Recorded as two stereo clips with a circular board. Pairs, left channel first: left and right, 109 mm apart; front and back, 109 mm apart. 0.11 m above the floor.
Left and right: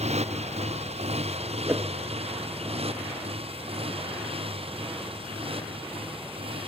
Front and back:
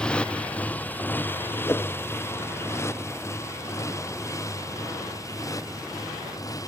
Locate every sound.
0.0 s a motorcycle: 80° right; by 6.7 s 60° right
1.7 s a whoosh: 45° right